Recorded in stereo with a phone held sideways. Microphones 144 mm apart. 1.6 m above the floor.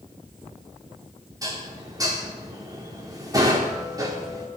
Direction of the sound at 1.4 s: 25° right (ahead or behind).